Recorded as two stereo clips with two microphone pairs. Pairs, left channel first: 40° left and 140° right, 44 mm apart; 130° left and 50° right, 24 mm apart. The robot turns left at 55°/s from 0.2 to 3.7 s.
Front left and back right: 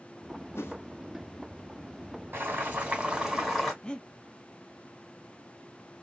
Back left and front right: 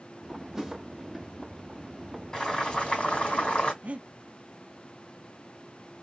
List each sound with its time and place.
0.6 s a whoosh: 30° left, 1.5 m; by 0.8 s 20° left, 1.5 m
2.3 s boiling: 160° right, 2.5 m; by 3.7 s 125° left, 2.5 m
3.8 s breathing: 30° right, 0.6 m